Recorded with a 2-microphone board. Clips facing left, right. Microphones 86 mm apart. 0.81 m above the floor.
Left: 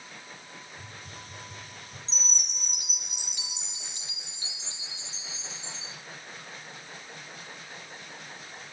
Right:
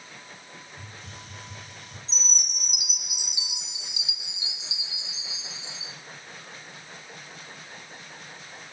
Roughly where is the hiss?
Right.